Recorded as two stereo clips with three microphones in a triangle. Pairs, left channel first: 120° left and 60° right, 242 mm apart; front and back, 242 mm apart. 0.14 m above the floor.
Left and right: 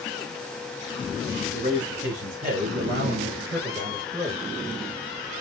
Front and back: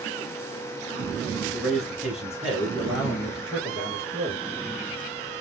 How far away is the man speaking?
About 1.8 m.